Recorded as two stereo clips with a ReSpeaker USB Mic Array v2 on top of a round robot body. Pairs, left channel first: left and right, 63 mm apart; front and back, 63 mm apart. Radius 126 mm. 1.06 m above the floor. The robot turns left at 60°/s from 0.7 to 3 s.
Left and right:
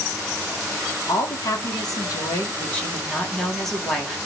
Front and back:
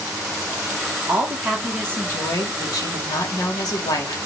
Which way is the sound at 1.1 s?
120° left.